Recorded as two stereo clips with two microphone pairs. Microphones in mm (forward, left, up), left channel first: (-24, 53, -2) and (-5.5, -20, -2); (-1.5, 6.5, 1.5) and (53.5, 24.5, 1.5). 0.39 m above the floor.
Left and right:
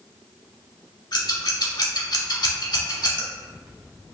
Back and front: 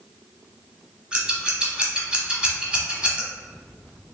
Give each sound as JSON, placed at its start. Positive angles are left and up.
{"t": 1.1, "sound": "scissors", "azimuth_deg": 90, "distance_m": 1.0}